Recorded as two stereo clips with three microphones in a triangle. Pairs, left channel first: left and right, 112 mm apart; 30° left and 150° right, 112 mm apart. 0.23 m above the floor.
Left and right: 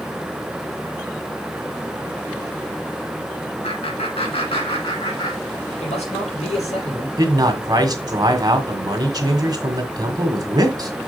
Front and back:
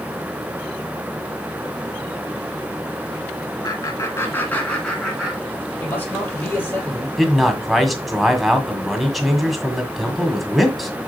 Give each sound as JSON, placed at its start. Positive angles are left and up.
{"t": 3.6, "sound": "laughter", "azimuth_deg": 80, "distance_m": 2.5}
{"t": 5.8, "sound": "a man speaking", "azimuth_deg": 100, "distance_m": 5.5}
{"t": 7.2, "sound": "a man speaking", "azimuth_deg": -60, "distance_m": 1.7}